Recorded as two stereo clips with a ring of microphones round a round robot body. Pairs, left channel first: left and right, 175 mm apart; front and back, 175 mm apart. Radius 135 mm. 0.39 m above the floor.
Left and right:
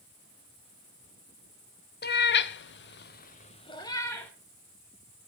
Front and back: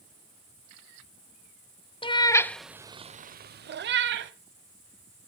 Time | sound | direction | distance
2.0 | a cat meowing | 60° left | 0.8 m